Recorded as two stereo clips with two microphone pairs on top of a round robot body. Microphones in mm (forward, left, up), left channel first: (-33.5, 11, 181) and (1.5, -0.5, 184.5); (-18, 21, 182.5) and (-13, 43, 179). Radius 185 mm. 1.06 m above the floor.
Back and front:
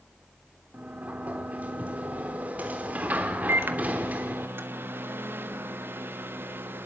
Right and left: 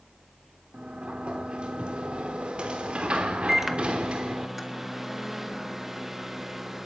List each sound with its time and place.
0.7 s a sliding door: 25° left, 1.1 m
3.5 s a microwave: straight ahead, 1.5 m